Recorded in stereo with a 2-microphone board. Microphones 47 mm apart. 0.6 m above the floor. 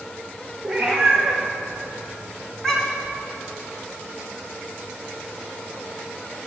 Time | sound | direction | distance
0.6 | a cat meowing | 5° left (ahead or behind) | 4 m